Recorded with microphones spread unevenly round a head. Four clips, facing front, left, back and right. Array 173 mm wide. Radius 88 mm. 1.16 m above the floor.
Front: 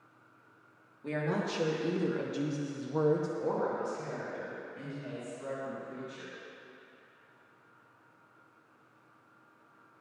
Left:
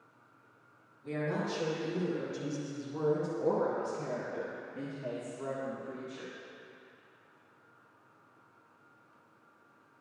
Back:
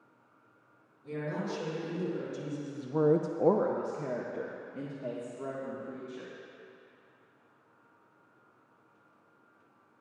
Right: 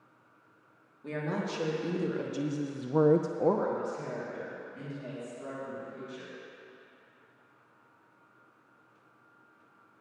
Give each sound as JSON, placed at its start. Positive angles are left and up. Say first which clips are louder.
{"t": 1.0, "sound": "a woman speaking", "louder": "even, front 3 dB", "azimuth_deg": -30, "distance_m": 2.5}